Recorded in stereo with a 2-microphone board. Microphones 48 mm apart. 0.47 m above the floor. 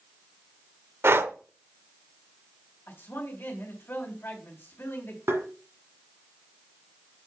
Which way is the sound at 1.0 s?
55° right (ahead or behind).